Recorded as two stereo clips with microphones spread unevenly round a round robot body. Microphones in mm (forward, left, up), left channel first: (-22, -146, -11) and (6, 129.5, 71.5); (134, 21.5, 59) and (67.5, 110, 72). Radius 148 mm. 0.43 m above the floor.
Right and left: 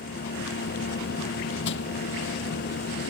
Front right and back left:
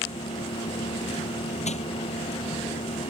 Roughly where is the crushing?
Ahead right.